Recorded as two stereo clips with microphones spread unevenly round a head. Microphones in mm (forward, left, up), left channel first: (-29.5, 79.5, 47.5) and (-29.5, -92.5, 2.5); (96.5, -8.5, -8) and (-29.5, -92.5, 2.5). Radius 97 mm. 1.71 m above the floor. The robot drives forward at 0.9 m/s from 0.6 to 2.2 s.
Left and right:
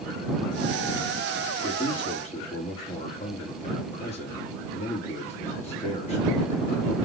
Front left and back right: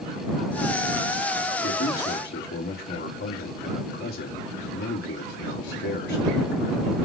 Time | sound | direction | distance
1.6 | a man speaking | 30° left | 5 m